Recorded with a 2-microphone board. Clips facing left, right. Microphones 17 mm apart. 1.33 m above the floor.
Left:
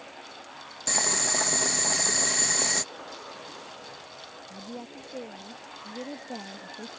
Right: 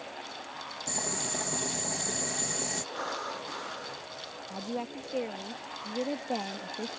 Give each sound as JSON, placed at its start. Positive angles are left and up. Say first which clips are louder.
{"t": 0.9, "sound": "boiling", "louder": "left 9 dB", "side_deg": 60}
{"t": 2.9, "sound": "breathing", "louder": "right 6 dB", "side_deg": -60}
{"t": 4.5, "sound": "a woman speaking", "louder": "right 6 dB", "side_deg": -45}